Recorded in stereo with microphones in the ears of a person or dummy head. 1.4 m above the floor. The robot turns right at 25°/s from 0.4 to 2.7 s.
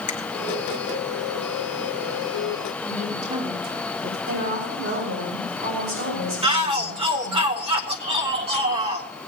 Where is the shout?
30° right (ahead or behind), 1.5 m.